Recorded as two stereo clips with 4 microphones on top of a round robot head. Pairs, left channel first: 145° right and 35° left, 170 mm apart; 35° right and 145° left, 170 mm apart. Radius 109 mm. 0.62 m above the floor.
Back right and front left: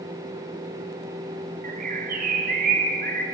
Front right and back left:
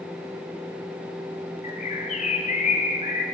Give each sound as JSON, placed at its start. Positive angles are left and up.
{"t": 1.6, "sound": "a bird", "azimuth_deg": 5, "distance_m": 0.7}